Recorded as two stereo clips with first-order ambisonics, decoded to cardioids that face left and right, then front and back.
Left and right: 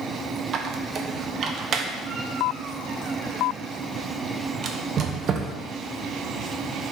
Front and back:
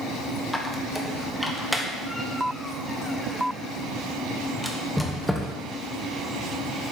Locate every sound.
0.5 s a squeak: 85° right, 0.5 m